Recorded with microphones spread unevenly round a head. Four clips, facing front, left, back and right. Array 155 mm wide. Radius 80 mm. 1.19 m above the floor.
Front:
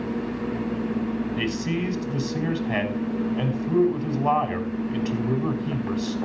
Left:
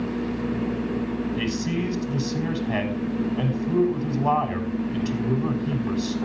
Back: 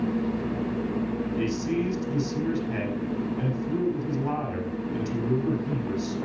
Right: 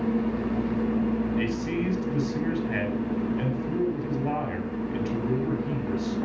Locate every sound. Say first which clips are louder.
1.4 s a man speaking: left 1 dB, even; 30° left, 6 m